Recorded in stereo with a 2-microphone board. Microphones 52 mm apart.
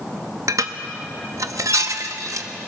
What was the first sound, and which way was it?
Dishes clattering, 80° right.